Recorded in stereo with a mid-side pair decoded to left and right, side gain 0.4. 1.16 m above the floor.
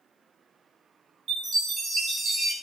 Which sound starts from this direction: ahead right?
A chime, at 1.3 s.